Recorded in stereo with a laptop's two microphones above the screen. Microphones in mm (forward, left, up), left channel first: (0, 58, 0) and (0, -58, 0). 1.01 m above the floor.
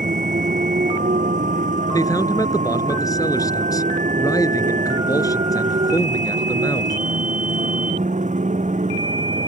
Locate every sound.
0.0 s a motorcycle: 85° right
1.9 s a man speaking: 30° left (ahead or behind)